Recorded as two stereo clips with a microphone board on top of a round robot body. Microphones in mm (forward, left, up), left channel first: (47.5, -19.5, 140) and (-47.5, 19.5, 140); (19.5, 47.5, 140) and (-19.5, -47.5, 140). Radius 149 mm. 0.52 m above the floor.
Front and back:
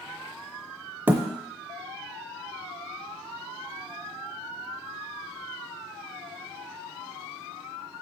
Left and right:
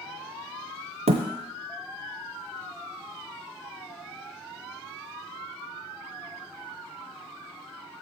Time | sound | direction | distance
1.1 | a thud | 130° right | 0.7 m